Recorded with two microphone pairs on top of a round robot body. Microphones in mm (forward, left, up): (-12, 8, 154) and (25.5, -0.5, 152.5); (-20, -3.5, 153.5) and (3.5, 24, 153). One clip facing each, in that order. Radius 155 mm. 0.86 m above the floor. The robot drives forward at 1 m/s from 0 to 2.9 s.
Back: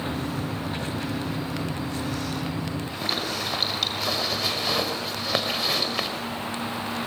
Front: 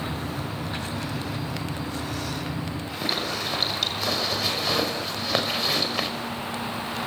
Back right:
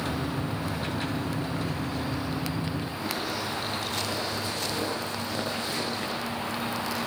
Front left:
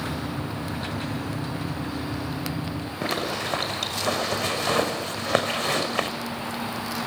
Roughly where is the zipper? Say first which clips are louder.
Front 1 dB, front left 6 dB; left.